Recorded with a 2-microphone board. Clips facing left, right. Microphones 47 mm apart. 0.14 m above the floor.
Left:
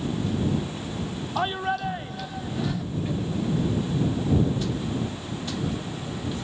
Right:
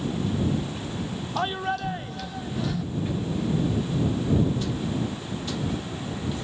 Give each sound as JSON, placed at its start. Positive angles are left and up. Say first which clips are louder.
{"t": 1.4, "sound": "a shout", "louder": "left 1 dB", "side_deg": 5}